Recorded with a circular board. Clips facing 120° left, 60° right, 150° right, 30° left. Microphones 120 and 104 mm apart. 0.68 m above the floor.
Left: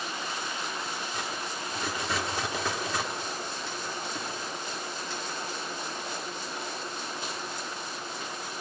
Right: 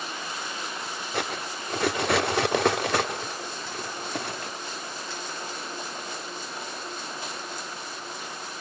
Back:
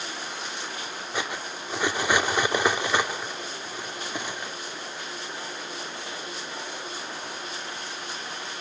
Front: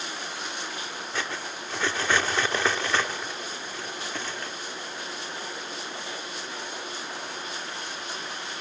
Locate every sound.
1.1 s cutlery clinking: 75° right, 1.0 m